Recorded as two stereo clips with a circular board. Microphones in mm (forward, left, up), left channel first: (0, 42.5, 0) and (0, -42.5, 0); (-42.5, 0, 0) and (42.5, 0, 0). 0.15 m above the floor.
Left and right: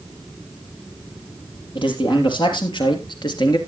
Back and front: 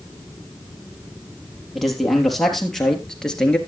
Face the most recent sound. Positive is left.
turn(degrees=100)